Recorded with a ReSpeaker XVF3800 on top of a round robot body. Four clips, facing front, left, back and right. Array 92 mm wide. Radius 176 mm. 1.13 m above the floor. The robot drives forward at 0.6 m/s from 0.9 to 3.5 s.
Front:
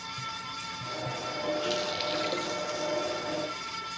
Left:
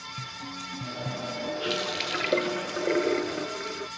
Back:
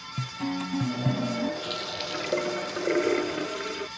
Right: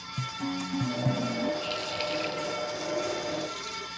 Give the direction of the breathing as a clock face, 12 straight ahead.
No breathing in this recording.